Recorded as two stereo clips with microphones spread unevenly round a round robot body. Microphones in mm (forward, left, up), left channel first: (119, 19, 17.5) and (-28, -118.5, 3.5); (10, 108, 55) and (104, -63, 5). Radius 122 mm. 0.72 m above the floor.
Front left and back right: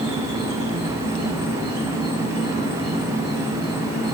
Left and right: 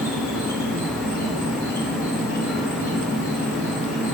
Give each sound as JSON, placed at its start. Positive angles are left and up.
{"t": 0.0, "sound": "an insect", "azimuth_deg": 85, "distance_m": 2.5}